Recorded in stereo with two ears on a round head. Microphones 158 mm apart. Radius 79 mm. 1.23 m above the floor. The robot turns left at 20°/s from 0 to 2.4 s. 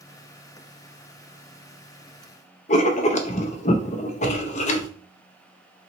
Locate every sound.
2.7 s writing: 40° left (ahead or behind), 0.6 m